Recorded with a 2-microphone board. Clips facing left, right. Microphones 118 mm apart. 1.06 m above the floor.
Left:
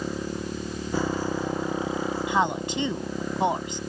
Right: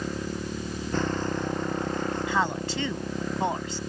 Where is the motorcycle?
10° left (ahead or behind); by 3.9 s 5° left (ahead or behind).